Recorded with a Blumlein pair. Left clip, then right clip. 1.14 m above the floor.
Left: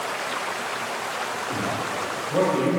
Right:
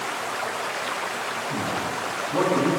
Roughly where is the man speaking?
Ahead left.